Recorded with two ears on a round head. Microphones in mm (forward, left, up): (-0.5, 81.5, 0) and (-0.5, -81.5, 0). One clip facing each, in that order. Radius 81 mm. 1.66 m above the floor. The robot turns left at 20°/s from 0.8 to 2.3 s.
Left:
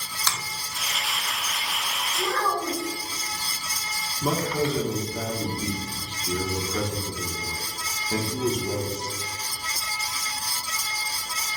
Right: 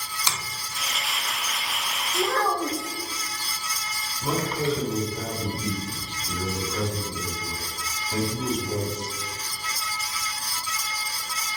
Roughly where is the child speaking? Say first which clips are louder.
Right 3 dB; right.